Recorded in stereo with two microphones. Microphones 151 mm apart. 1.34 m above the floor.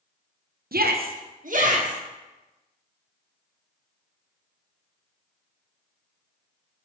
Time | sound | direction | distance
0.7 | a shout | 80° right | 0.8 m